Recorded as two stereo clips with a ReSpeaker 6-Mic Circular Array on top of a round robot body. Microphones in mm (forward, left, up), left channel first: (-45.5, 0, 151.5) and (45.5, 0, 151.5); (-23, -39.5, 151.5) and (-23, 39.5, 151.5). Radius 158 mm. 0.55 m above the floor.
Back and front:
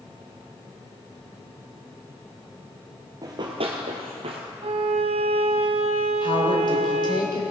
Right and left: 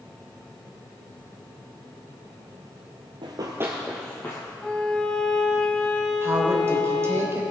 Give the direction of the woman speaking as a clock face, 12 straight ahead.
7 o'clock.